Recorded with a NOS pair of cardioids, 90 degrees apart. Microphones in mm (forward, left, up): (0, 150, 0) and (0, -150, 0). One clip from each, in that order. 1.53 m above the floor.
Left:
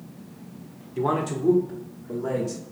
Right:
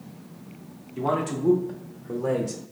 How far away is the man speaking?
About 0.7 m.